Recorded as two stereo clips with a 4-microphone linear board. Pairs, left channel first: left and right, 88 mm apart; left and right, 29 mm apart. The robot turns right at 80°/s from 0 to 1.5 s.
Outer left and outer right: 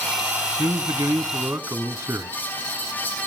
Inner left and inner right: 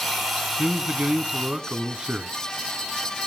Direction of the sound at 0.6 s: 110° right.